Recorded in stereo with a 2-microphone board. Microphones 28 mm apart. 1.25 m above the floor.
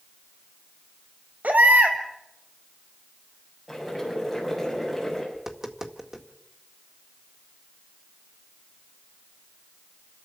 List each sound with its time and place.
1.4 s a baby crying: 75° right (ahead or behind), 3 m
3.7 s boiling: 5° right (ahead or behind), 8 m
5.3 s tapping: 15° right (ahead or behind), 1.8 m